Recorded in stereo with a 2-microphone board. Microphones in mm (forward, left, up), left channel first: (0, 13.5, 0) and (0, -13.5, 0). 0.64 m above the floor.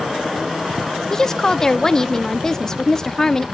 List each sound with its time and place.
1.1 s a woman speaking: 20° left (ahead or behind), 0.5 m